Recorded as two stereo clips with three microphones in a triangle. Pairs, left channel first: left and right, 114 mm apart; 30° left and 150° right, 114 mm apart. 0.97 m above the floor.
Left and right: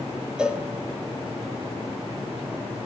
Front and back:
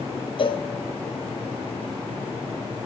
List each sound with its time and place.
0.4 s a cowbell: 5° right, 1.0 m